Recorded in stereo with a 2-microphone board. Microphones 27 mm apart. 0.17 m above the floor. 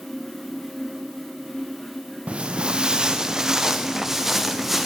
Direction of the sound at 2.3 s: 45° right (ahead or behind).